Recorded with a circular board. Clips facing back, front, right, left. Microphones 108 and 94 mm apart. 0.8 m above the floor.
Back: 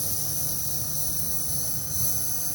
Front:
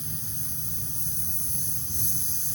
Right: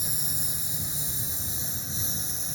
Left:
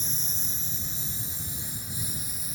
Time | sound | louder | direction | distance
0.0 | a lawn mower | back 3 dB, right 1 dB | 170° right | ?